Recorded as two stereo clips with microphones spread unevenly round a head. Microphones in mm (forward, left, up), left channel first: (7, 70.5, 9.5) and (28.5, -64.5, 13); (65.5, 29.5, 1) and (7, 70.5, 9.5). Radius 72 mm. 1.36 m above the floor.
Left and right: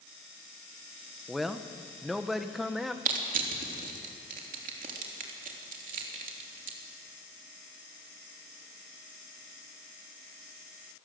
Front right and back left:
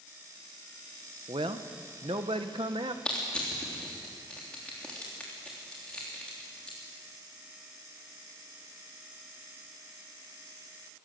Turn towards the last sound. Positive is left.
turn(degrees=-120)